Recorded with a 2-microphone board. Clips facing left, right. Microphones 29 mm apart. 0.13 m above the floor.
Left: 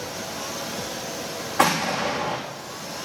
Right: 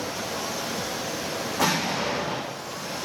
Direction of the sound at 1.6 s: 80° left.